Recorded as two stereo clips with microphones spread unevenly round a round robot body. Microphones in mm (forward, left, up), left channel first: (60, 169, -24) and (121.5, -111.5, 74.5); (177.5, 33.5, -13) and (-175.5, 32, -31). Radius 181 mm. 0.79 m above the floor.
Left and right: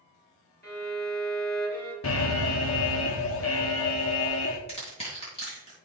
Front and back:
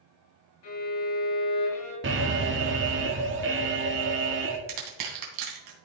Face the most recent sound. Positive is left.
turn(degrees=180)